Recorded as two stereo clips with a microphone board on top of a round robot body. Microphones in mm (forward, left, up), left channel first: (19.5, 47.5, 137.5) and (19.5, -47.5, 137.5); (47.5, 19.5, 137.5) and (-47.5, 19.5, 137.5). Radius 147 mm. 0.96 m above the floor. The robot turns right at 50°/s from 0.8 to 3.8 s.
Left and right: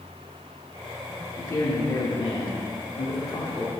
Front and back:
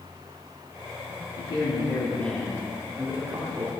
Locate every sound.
1.4 s a man speaking: 30° left, 2.5 m; by 3.7 s 145° left, 2.5 m